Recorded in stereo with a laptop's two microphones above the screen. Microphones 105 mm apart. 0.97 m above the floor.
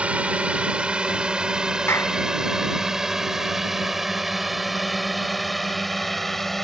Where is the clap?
25° left (ahead or behind).